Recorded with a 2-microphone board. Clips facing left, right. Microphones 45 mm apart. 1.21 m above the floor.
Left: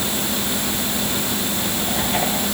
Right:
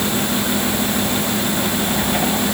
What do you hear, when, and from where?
Only background noise.